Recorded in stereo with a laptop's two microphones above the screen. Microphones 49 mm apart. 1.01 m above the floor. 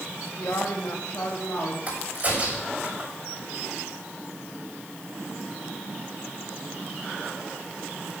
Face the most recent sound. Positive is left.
turn(degrees=-30)  # may be behind; listen again after turning